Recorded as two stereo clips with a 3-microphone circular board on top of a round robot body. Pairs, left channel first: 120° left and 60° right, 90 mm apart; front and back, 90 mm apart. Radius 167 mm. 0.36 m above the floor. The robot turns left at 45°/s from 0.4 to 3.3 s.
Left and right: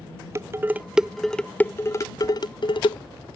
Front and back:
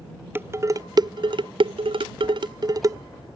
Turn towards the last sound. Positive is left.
turn(degrees=115)